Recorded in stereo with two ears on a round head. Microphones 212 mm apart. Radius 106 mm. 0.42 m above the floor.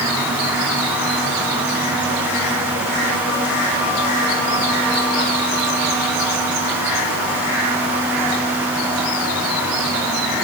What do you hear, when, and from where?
Only background noise.